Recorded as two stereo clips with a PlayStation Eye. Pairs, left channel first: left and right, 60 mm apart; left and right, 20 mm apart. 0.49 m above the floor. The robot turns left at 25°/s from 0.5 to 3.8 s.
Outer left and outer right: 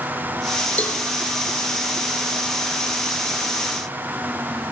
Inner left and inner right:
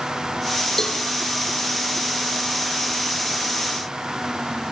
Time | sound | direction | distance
0.8 | a cowbell | 25° left (ahead or behind) | 3 m